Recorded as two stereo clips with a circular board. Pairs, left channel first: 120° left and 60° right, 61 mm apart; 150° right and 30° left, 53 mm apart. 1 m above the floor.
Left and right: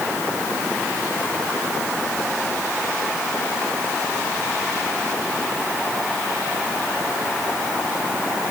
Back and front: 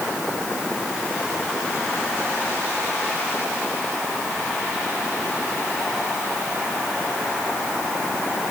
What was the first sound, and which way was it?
Only background noise.